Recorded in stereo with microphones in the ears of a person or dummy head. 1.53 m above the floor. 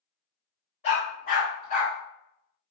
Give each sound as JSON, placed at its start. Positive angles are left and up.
{"t": 0.8, "sound": "a dog barking", "side_deg": 30, "distance_m": 1.3}